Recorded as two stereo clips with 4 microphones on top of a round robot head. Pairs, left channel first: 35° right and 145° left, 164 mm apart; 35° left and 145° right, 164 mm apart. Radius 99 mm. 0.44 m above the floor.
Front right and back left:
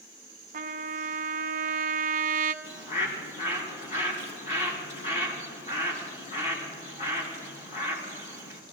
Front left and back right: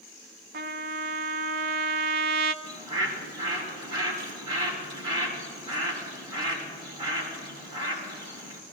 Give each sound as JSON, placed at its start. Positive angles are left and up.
{"t": 0.5, "sound": "a trumpet", "azimuth_deg": -175, "distance_m": 0.6}
{"t": 2.6, "sound": "a bird", "azimuth_deg": -85, "distance_m": 4.0}